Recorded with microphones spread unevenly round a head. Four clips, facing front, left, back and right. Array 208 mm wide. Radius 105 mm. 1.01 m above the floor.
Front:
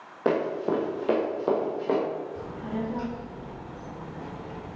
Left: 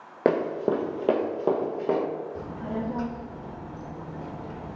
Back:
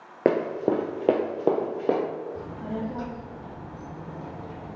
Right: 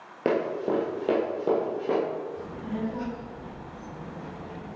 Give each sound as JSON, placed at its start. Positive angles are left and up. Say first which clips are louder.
{"t": 0.2, "sound": "running footsteps", "louder": "left 2 dB, back 2 dB", "azimuth_deg": 150, "distance_m": 1.2}
{"t": 2.4, "sound": "a child speaking", "louder": "left 1 dB, even", "azimuth_deg": 120, "distance_m": 1.7}